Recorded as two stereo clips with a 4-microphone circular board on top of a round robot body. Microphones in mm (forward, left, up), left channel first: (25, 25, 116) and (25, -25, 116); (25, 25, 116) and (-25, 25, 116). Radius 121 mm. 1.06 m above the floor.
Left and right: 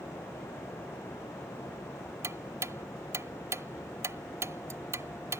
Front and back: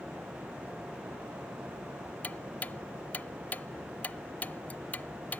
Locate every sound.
2.2 s ticking: 65° right